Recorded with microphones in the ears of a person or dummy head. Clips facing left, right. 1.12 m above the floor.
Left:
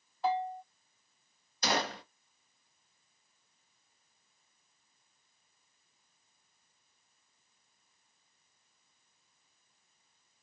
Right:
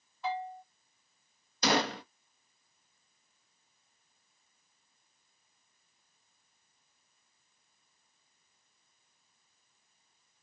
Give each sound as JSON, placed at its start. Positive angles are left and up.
{"t": 0.2, "sound": "a bell", "side_deg": 35, "distance_m": 1.2}
{"t": 1.6, "sound": "a gunshot", "side_deg": -55, "distance_m": 0.8}